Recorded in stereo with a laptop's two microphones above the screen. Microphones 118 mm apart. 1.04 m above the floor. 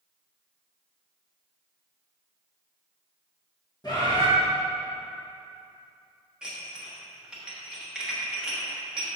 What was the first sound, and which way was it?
A bird, 35° left (ahead or behind).